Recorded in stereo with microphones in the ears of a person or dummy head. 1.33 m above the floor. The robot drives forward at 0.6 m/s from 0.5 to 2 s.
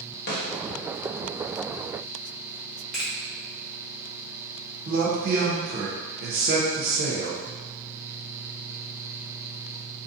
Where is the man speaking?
55° right (ahead or behind), 0.8 m.